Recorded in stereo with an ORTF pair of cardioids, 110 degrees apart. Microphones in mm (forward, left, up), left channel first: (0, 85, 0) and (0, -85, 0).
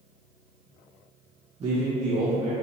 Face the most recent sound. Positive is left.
turn(degrees=-40)